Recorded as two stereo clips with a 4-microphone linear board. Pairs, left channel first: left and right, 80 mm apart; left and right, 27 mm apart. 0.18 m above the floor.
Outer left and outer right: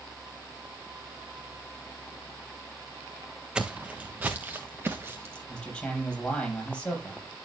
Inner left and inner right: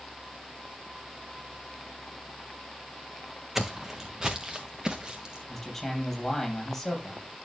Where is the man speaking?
10° left (ahead or behind), 6 m.